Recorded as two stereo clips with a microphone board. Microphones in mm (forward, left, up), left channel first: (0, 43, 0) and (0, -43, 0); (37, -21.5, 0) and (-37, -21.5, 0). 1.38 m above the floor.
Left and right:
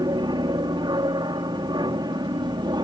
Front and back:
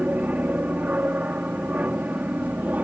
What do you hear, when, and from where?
0.0 s an aircraft: 115° right